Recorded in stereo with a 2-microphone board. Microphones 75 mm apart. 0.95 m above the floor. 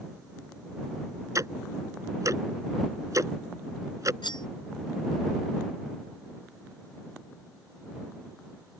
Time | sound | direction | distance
1.4 | ticking | 45° right (ahead or behind) | ?
4.2 | cutlery clinking | 85° left | ?